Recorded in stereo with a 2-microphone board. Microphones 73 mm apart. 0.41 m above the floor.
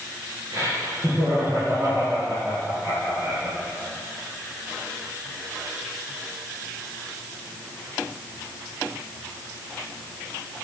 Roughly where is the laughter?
Right.